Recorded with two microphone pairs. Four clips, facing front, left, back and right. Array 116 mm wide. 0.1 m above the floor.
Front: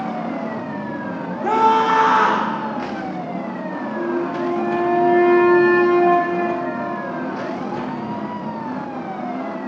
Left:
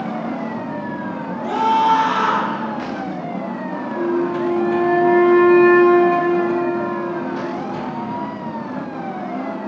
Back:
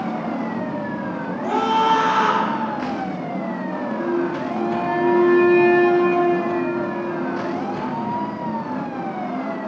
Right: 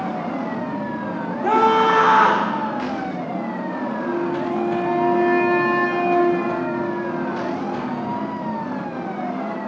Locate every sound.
1.4 s a scream: 50° right, 7 m
4.0 s a flute: 70° left, 5.5 m